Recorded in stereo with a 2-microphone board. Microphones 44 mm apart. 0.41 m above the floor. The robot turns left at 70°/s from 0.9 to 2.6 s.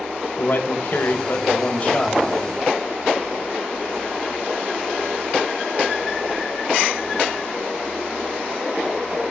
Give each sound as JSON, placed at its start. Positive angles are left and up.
{"t": 0.4, "sound": "a man speaking", "azimuth_deg": 110, "distance_m": 1.6}